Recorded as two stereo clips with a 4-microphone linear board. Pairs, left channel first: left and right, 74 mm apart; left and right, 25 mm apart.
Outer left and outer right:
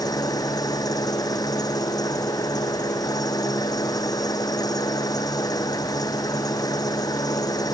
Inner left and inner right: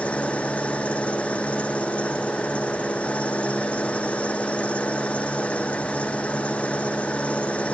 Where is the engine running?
60° left (ahead or behind).